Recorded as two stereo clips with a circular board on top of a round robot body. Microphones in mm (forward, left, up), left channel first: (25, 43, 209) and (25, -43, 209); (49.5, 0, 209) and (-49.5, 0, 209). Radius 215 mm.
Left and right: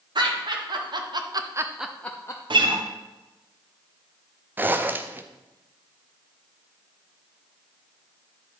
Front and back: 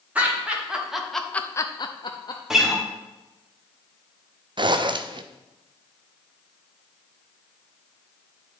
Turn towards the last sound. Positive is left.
turn(degrees=-155)